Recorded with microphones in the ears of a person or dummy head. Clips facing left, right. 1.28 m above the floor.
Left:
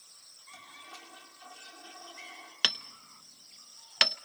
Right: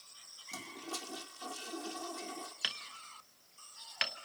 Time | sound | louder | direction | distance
0.5 | a toilet flushing | right 9 dB | 70° right (ahead or behind) | 1.9 m
2.6 | hammering | left 8 dB | 70° left (ahead or behind) | 0.8 m